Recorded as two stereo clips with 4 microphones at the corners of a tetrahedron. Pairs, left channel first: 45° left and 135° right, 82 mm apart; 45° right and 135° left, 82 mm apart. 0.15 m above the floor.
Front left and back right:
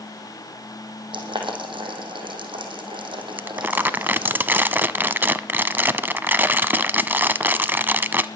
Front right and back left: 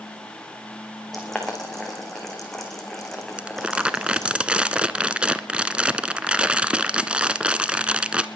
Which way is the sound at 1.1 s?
130° right.